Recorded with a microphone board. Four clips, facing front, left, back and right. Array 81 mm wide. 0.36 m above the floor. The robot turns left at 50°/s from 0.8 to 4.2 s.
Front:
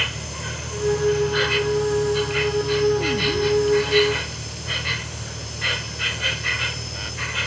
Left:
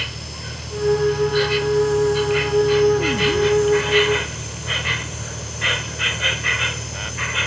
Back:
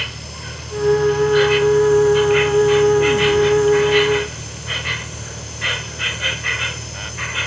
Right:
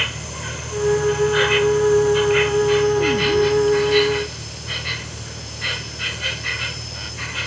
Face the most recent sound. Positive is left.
turn(degrees=120)